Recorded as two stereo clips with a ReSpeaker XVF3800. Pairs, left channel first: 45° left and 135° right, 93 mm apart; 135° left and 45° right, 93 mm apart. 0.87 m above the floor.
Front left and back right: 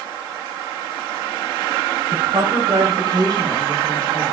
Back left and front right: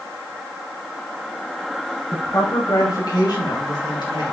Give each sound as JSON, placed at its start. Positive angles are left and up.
{"t": 2.1, "sound": "a woman speaking", "azimuth_deg": -175, "distance_m": 4.5}